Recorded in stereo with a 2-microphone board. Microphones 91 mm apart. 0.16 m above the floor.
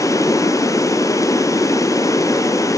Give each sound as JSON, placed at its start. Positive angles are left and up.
{"t": 0.0, "sound": "running water", "side_deg": 40, "distance_m": 1.0}